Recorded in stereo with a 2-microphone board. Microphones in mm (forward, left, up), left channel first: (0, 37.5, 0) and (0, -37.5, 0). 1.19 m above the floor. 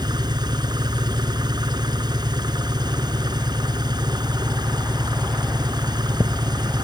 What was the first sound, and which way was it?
An engine running, 75° right (ahead or behind).